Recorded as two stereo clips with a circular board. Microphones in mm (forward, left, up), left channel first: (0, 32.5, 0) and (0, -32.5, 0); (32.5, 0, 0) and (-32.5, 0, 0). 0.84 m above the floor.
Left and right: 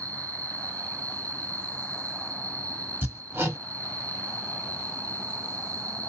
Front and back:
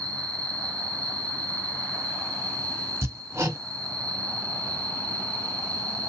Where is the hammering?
150° right, 1.4 m.